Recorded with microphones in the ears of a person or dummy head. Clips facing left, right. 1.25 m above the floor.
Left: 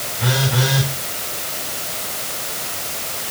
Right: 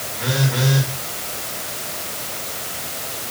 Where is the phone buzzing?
Centre (ahead or behind), 6 m.